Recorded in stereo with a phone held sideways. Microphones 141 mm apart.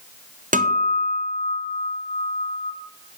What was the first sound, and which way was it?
A guitar, 65° right (ahead or behind).